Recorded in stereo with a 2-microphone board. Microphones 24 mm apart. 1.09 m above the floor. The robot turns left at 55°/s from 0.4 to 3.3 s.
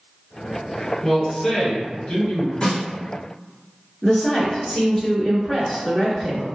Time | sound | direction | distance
1.0 | a man speaking | 170° left | 1.2 m
2.6 | a snare drum | 40° left (ahead or behind) | 1.0 m
4.0 | a woman speaking | 5° left (ahead or behind) | 0.9 m